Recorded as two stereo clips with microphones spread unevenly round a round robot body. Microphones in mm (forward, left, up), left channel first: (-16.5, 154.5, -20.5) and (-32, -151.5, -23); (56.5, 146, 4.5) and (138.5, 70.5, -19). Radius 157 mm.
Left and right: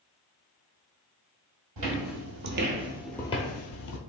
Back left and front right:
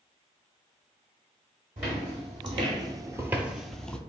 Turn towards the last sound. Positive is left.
turn(degrees=70)